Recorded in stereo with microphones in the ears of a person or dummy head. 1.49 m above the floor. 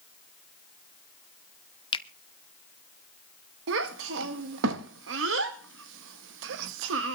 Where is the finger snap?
30° left (ahead or behind), 0.6 m.